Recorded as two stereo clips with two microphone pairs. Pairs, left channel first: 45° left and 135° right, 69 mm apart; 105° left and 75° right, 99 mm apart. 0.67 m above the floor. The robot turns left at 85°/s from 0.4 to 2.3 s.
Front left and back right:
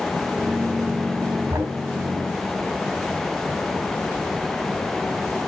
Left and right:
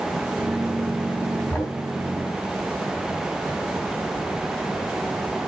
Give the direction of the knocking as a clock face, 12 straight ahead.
6 o'clock.